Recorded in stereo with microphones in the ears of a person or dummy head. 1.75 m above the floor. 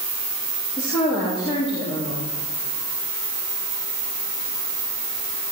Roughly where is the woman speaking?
Left.